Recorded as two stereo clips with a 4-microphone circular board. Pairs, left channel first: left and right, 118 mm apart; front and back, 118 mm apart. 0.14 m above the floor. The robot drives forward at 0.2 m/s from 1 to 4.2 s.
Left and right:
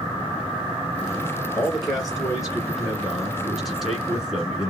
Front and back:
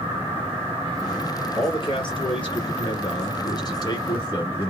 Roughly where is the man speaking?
Ahead.